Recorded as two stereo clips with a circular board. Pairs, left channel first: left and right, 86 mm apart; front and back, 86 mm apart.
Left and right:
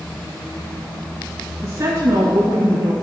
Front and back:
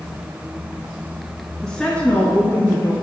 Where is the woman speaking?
85° right, 1.2 m; by 2.9 s 50° right, 1.9 m.